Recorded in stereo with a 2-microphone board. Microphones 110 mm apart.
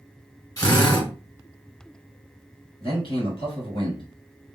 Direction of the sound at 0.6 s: 30° left (ahead or behind).